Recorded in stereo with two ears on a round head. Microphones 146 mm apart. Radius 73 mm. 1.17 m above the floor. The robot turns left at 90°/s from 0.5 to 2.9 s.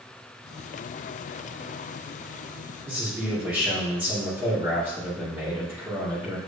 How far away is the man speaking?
About 2.5 m.